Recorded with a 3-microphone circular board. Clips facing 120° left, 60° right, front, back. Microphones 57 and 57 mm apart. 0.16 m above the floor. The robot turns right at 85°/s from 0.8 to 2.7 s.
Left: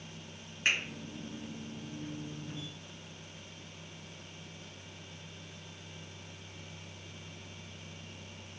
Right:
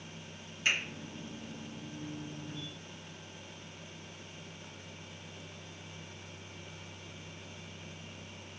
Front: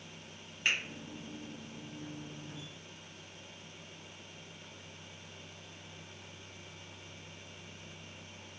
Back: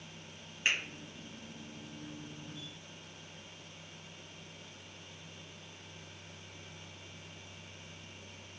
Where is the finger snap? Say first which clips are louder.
Left 1 dB, even; 95° left, 1.6 m.